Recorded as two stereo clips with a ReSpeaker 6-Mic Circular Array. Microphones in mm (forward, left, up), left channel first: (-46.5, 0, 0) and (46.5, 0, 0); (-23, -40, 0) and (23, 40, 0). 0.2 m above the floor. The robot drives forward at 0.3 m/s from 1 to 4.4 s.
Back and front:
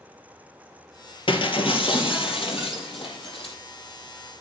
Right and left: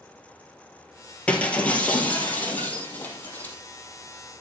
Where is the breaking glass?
165° left, 1.4 m; by 3.5 s 170° left, 2 m.